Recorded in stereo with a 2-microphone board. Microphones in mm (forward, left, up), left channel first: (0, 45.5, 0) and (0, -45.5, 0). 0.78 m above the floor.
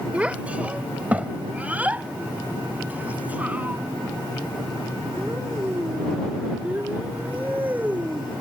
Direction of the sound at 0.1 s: 15° right (ahead or behind).